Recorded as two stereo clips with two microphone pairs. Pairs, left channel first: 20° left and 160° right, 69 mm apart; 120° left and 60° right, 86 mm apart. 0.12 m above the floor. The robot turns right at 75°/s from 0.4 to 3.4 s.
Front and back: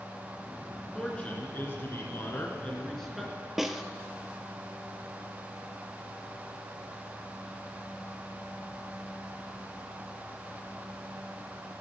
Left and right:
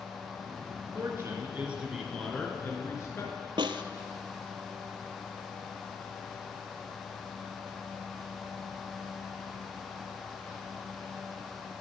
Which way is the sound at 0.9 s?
55° right.